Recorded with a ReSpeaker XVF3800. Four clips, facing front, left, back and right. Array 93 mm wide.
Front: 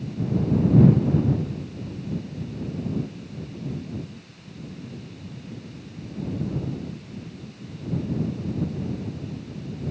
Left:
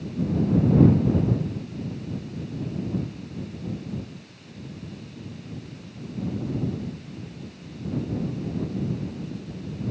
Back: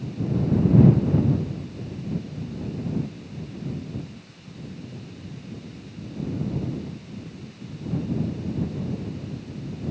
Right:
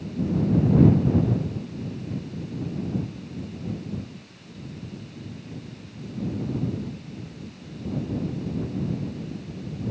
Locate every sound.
Only background noise.